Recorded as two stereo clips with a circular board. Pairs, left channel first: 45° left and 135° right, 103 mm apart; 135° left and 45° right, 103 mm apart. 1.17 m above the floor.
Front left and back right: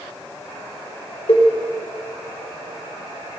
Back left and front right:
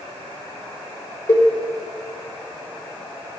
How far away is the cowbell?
About 3.5 m.